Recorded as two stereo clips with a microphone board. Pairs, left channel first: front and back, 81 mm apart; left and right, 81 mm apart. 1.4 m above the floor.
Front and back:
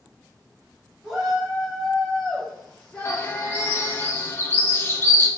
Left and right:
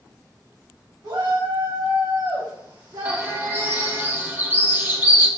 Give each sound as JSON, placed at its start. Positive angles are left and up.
{"t": 1.0, "sound": "a shout", "azimuth_deg": -100, "distance_m": 2.5}
{"t": 3.0, "sound": "a bird", "azimuth_deg": -45, "distance_m": 1.1}